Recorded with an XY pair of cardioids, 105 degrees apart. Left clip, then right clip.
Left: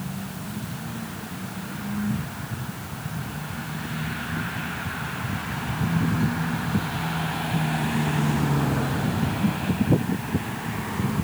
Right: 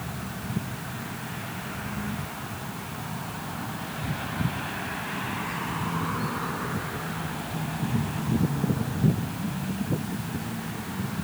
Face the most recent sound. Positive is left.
No sound to turn to.